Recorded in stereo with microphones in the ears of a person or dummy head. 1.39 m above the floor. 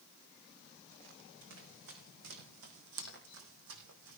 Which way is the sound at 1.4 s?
65° right (ahead or behind).